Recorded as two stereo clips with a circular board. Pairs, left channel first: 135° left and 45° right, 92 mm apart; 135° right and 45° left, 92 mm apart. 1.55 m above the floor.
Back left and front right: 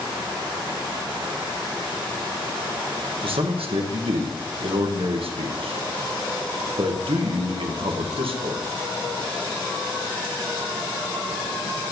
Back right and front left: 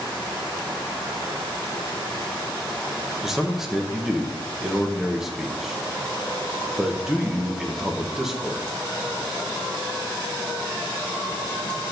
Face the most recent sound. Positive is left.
turn(degrees=-40)